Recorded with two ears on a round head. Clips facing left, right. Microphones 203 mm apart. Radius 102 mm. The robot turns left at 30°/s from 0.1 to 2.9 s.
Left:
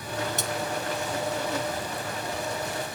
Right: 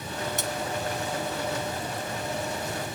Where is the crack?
I don't hear a crack.